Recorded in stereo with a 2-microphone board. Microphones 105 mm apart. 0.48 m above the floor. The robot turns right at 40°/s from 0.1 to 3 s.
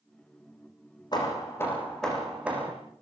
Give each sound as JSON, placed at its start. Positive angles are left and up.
{"t": 1.1, "sound": "hammering", "azimuth_deg": 135, "distance_m": 8.0}